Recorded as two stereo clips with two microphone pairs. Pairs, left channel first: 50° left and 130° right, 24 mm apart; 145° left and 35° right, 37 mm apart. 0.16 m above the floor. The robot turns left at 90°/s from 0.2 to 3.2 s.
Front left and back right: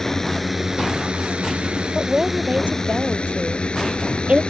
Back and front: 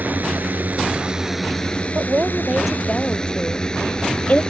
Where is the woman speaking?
50° right; by 4.4 s 160° right.